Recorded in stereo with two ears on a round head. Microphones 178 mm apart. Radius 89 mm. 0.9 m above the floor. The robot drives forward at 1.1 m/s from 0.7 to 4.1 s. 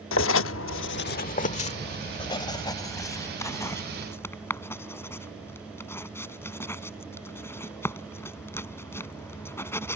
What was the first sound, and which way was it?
Writing, 70° left (ahead or behind).